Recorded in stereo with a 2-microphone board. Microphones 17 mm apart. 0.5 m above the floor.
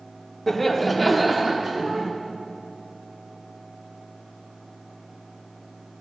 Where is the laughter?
20° left (ahead or behind), 1.2 m; by 2.1 s 30° right (ahead or behind), 1.4 m.